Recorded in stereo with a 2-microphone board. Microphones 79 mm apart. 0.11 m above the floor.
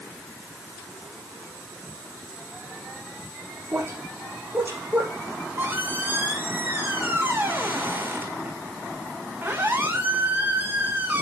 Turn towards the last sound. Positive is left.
turn(degrees=-25)  # may be behind; listen again after turning